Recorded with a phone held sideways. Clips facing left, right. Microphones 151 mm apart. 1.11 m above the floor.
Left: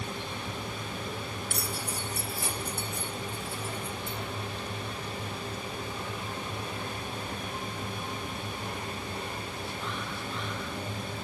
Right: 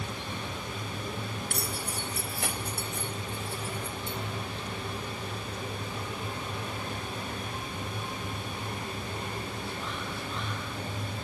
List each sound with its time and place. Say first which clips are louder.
1.5 s keys jangling: even; 60° right (ahead or behind), 4.5 m; by 4.2 s 80° right, 5.5 m